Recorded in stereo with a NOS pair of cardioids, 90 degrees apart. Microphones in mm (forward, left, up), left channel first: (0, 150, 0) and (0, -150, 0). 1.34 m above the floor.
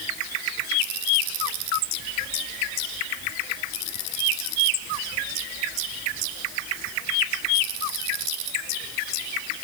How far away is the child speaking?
No child speaking in this recording.